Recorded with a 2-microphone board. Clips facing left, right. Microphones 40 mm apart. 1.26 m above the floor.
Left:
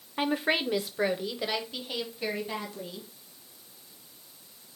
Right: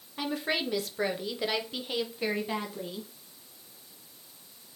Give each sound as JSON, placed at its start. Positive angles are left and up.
{"t": 0.2, "sound": "a woman speaking", "side_deg": 35, "distance_m": 0.6}